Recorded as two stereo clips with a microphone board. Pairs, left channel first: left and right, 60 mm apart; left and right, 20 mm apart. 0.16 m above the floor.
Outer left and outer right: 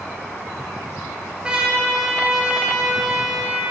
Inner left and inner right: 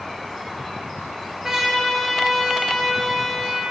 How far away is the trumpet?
About 1.5 m.